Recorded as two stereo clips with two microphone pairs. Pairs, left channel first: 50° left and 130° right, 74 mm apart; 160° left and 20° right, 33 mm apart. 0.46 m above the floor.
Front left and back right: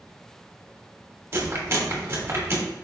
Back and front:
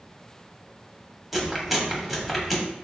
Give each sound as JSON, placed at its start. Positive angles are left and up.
{"t": 1.3, "sound": "chewing", "azimuth_deg": -100, "distance_m": 0.9}